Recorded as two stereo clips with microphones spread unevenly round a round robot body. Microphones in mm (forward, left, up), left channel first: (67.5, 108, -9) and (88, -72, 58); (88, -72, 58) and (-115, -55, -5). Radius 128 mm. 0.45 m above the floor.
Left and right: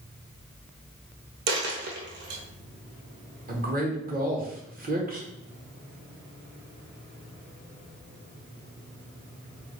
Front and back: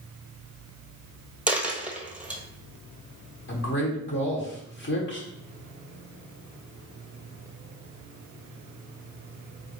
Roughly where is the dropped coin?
Right.